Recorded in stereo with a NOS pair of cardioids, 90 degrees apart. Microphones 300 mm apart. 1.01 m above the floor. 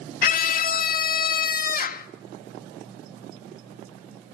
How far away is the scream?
About 1.7 m.